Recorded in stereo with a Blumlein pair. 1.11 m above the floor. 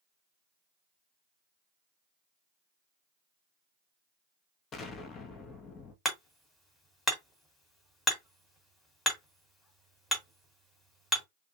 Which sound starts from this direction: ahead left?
An explosion, at 4.7 s.